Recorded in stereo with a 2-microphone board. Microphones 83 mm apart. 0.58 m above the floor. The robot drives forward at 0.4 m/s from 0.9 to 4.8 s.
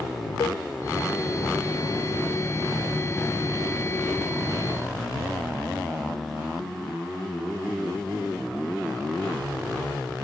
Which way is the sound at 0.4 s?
50° left (ahead or behind).